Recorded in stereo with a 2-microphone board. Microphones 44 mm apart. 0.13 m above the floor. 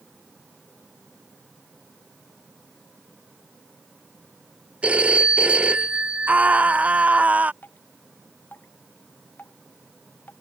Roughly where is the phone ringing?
Right.